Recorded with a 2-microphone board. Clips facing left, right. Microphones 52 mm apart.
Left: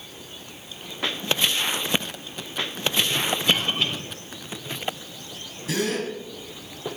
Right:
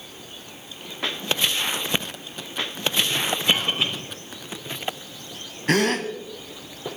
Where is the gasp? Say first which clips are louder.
Right 5 dB; 55° right (ahead or behind), 1.7 m.